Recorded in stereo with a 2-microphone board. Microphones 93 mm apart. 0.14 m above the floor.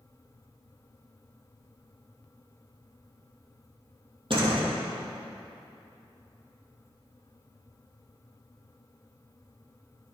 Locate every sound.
4.3 s a door slam: 60° right (ahead or behind), 2.5 m